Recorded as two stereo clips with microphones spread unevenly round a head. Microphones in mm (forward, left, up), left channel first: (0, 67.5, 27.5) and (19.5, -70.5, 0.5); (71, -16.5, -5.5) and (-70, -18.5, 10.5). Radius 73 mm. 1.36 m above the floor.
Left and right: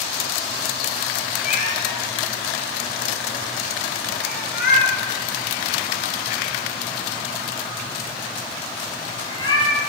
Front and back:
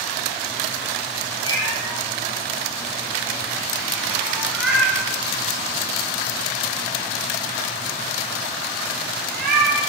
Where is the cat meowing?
70° left, 4 m; by 9.8 s 155° left, 4 m.